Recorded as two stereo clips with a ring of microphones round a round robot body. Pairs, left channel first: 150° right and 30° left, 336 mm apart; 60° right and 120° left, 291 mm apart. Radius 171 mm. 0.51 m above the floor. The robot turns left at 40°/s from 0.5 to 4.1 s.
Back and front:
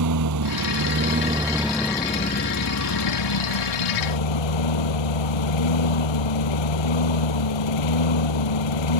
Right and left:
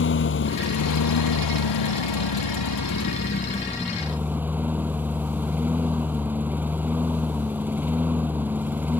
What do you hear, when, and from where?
0.0 s a lawn mower: 10° right; by 9.0 s 155° right